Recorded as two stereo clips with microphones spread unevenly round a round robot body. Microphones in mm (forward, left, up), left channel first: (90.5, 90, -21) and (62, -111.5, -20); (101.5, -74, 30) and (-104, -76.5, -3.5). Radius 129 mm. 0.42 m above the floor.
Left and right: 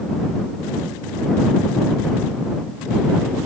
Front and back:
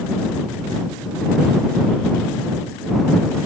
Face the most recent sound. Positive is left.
No sound to turn to.